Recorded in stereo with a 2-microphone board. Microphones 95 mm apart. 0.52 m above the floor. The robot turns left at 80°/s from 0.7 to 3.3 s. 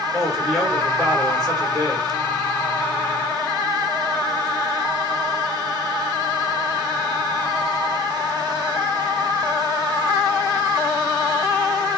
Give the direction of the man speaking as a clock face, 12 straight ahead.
12 o'clock.